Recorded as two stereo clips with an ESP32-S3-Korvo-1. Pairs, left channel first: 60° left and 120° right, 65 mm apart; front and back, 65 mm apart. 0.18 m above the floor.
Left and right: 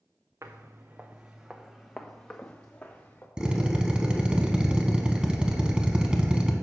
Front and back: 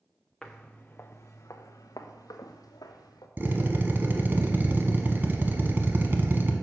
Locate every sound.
0.4 s footsteps: 85° right, 0.8 m; by 3.3 s 5° right, 1.6 m
3.4 s a drill: 175° left, 0.9 m